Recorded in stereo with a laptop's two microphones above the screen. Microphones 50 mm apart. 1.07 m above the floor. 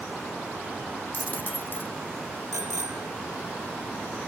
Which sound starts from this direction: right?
A bicycle bell, at 2.5 s.